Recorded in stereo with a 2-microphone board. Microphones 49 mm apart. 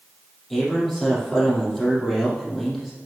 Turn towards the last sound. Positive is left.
turn(degrees=5)  # may be behind; listen again after turning